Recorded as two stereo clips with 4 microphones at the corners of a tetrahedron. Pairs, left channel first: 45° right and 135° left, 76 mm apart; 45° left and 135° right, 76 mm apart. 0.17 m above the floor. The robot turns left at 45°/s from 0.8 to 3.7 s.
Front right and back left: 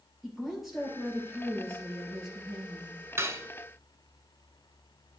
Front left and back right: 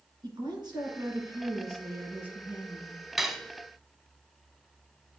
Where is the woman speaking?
135° right, 3 m; by 3.0 s 125° left, 3 m.